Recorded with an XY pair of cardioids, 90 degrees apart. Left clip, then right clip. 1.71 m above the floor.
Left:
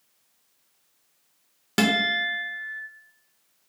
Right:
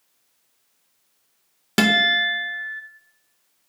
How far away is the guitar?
About 0.6 m.